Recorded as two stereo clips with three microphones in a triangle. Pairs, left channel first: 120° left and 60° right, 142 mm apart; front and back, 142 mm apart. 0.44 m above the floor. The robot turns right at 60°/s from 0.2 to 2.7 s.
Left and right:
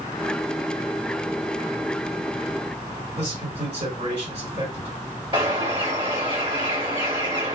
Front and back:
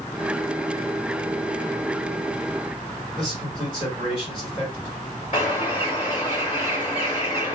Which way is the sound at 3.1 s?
40° right.